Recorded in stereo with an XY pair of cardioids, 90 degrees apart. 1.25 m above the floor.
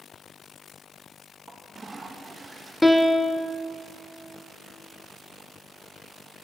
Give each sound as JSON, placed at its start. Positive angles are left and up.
{"t": 1.5, "sound": "a toilet flushing", "azimuth_deg": -25, "distance_m": 1.2}
{"t": 2.8, "sound": "a piano", "azimuth_deg": 5, "distance_m": 0.7}